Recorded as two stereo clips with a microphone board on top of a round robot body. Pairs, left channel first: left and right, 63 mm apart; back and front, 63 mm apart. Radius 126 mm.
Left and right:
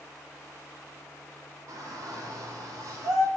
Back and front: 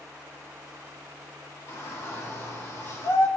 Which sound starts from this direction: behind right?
A shout, at 1.7 s.